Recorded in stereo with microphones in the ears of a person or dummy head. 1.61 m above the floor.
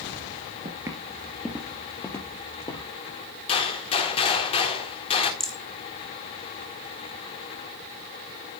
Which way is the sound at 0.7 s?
20° right (ahead or behind).